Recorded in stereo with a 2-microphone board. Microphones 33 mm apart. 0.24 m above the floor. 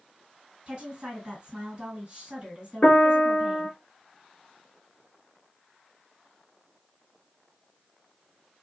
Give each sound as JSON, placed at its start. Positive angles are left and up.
{"t": 0.7, "sound": "a woman speaking", "side_deg": -30, "distance_m": 1.9}
{"t": 2.8, "sound": "a piano", "side_deg": 40, "distance_m": 0.7}